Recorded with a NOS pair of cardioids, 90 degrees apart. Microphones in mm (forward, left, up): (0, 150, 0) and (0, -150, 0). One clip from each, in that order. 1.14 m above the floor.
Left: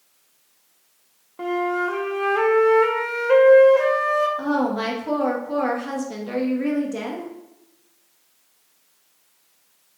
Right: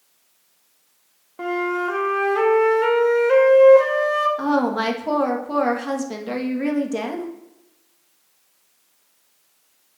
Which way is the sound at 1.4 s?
10° right.